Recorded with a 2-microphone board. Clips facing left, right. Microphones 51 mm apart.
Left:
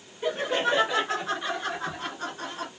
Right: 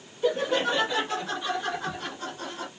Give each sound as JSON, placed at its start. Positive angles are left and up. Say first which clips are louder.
{"t": 0.2, "sound": "laughter", "louder": "right 1 dB", "side_deg": 15, "distance_m": 2.5}